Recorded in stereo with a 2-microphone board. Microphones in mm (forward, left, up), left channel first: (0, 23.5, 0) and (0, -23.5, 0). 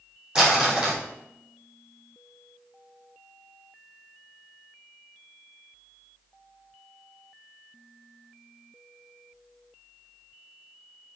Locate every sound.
0.3 s crumpling: 20° right (ahead or behind), 4 m